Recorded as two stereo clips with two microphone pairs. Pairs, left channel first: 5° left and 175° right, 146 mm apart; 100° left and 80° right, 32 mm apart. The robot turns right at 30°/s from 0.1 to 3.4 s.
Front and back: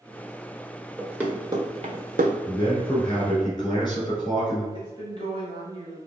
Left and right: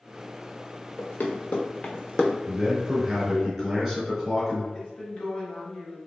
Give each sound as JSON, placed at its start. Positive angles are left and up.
{"t": 1.0, "sound": "running footsteps", "azimuth_deg": 95, "distance_m": 1.3}
{"t": 2.5, "sound": "a man speaking", "azimuth_deg": -35, "distance_m": 1.6}
{"t": 4.7, "sound": "a woman speaking", "azimuth_deg": 145, "distance_m": 1.7}